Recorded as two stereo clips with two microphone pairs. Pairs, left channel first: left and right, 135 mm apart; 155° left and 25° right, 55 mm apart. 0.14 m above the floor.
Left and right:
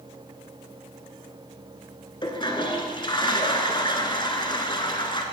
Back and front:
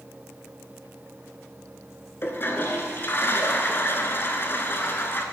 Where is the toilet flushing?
130° left, 0.8 m.